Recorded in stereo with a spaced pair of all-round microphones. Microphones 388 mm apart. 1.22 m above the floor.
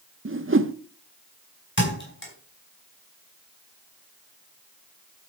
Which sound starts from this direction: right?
A whoosh, at 0.2 s.